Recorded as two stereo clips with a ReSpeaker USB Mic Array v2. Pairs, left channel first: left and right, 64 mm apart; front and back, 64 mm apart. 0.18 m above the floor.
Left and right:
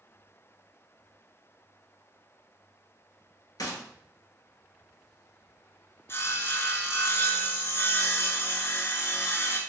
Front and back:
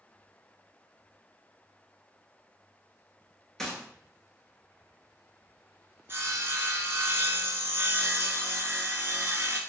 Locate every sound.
3.6 s a gunshot: 85° left, 0.8 m
6.1 s sawing: 135° left, 0.6 m